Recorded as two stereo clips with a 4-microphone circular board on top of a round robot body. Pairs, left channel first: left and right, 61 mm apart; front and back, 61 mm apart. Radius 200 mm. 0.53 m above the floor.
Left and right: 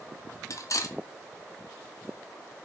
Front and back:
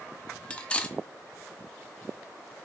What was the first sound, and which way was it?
Cutlery clinking, 70° left.